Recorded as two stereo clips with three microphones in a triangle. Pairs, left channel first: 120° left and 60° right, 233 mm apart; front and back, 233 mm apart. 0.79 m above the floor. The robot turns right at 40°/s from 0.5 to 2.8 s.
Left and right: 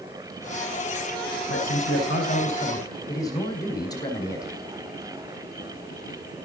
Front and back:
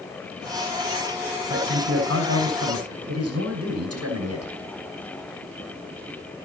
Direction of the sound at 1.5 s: 145° left.